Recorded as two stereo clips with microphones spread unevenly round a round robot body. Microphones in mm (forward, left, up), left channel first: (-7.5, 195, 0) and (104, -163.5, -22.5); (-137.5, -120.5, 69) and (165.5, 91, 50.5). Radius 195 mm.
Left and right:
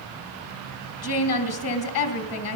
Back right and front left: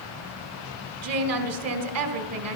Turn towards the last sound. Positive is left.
turn(degrees=65)